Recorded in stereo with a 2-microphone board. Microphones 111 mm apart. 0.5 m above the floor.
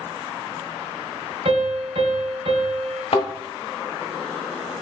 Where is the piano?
65° right (ahead or behind), 1.8 m.